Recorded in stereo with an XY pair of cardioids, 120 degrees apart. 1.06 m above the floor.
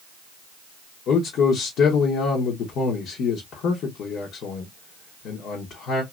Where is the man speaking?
65° left, 1.2 m.